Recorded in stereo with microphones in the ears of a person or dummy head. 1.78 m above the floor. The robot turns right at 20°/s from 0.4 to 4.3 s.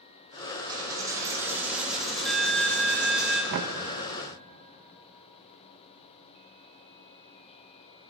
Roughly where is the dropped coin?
Ahead right.